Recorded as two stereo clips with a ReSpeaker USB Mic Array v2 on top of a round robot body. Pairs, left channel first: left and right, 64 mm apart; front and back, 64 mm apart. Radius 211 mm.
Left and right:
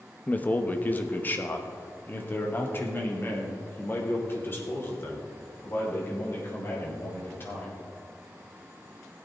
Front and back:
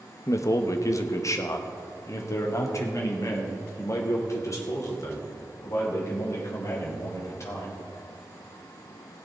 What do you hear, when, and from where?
0.3 s a man speaking: 30° left, 1.2 m; by 7.8 s 35° left, 5 m